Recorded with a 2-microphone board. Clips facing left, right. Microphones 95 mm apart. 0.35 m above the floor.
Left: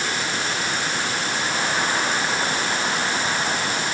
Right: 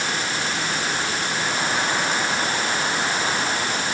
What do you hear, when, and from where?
Only background noise.